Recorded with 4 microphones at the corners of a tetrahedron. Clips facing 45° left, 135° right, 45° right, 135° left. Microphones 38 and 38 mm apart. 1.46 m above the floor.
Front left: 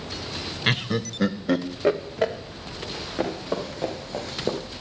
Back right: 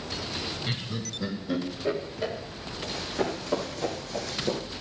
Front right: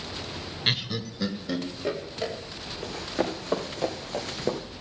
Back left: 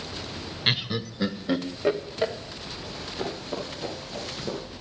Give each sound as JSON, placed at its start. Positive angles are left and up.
{"t": 0.7, "sound": "laughter", "azimuth_deg": 55, "distance_m": 0.7}
{"t": 2.8, "sound": "running footsteps", "azimuth_deg": -25, "distance_m": 5.0}